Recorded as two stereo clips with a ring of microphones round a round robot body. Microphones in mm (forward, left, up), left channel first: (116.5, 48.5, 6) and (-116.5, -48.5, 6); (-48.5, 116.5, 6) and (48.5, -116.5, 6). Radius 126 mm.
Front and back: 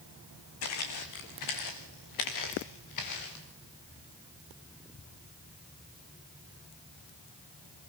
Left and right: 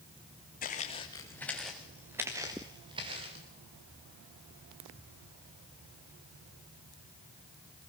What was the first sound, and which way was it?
Footsteps, 55° left.